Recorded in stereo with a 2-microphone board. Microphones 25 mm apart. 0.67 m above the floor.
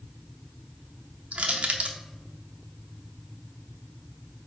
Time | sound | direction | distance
1.3 | crushing | 55° right (ahead or behind) | 0.5 m